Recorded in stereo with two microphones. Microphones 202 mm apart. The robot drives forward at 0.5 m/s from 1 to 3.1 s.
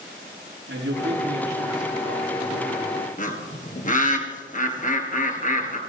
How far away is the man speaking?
About 7.5 m.